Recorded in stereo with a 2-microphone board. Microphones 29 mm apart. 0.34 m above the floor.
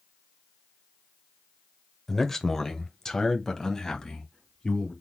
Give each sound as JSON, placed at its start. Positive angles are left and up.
{"t": 2.1, "sound": "a man speaking", "side_deg": 10, "distance_m": 0.9}